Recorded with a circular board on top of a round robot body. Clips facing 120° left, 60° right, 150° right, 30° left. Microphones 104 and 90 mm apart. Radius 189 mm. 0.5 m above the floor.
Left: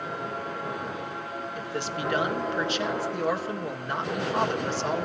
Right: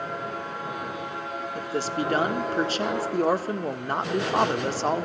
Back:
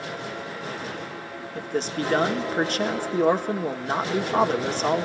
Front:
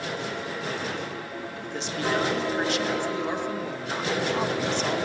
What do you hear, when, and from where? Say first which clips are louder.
1.6 s a man speaking: right 6 dB, back 7 dB; 105° right, 1.8 m